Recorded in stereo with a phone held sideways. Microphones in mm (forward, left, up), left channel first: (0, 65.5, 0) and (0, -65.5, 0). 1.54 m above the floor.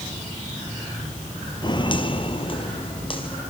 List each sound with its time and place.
1.6 s footsteps: 35° left (ahead or behind), 1.8 m; by 3.4 s 40° left (ahead or behind), 3.5 m